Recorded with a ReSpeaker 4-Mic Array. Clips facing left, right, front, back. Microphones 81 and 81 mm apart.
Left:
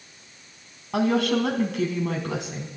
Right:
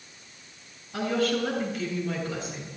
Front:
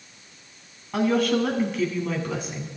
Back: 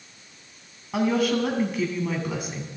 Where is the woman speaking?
95° left, 4.5 m.